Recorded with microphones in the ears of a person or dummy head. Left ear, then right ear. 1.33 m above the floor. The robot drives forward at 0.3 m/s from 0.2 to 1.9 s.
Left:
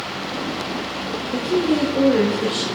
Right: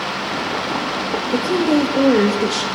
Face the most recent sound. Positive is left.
turn(degrees=-35)  # may be behind; listen again after turning